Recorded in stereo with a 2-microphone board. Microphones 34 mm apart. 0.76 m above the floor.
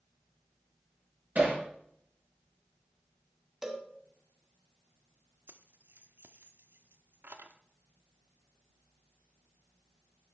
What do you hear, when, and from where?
1.4 s hammering: 45° right (ahead or behind), 6.5 m
3.6 s a cowbell: 10° right (ahead or behind), 1.4 m
5.5 s keys jangling: 75° right (ahead or behind), 0.9 m